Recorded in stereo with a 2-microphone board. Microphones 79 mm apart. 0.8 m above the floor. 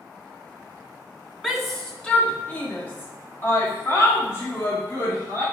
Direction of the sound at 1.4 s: Centre (ahead or behind).